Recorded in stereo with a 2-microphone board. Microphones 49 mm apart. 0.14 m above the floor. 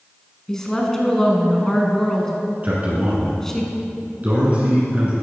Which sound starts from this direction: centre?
A woman speaking, at 0.5 s.